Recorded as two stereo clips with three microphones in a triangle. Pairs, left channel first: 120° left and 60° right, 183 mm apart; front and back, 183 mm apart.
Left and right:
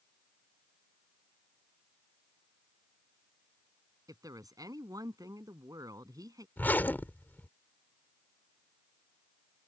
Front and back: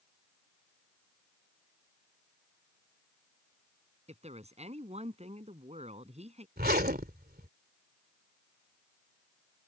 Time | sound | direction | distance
4.1 | a woman speaking | 130° right | ?
6.6 | a zipper | 160° right | ?